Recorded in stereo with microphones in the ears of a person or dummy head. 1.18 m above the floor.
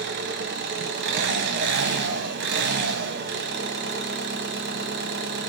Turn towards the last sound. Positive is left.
turn(degrees=-50)  # may be behind; listen again after turning